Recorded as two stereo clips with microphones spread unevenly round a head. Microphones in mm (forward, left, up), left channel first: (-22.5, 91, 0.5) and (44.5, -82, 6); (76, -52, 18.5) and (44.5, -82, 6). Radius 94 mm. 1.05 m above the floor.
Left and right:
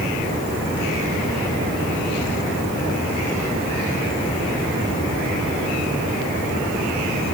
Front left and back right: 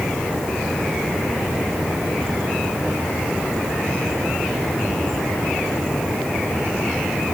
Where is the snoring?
I don't hear snoring.